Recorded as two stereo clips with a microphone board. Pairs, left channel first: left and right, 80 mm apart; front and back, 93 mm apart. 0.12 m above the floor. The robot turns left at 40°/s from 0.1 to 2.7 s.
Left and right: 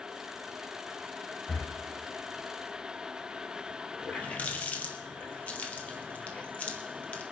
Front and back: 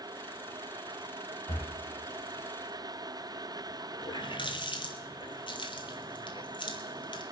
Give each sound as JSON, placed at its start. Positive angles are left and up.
{"t": 1.5, "sound": "breathing", "azimuth_deg": 15, "distance_m": 1.3}
{"t": 4.0, "sound": "a running tap", "azimuth_deg": 15, "distance_m": 1.9}